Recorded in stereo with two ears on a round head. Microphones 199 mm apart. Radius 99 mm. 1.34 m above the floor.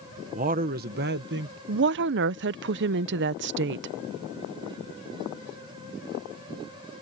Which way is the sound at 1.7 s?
55° right (ahead or behind).